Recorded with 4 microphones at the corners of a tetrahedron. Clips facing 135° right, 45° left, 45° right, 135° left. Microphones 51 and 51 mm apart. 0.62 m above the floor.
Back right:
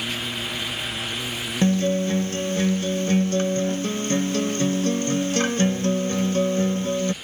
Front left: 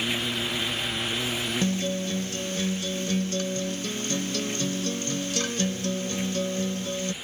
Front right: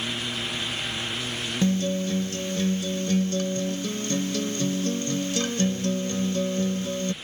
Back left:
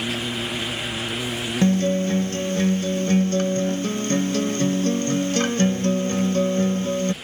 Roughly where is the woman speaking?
I don't hear a woman speaking.